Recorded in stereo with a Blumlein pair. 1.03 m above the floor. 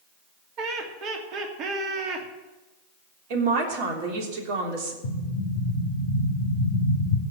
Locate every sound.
0.6 s laughter: 35° right, 3 m
3.3 s a man speaking: 50° right, 3 m
5.0 s an explosion: 55° left, 1.7 m